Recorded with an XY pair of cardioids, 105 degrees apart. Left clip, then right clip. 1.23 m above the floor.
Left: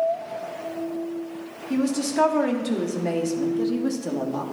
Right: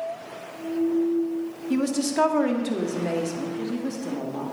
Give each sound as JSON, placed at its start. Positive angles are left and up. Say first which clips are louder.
{"t": 1.7, "sound": "a woman speaking", "louder": "left 1 dB", "azimuth_deg": -15, "distance_m": 2.5}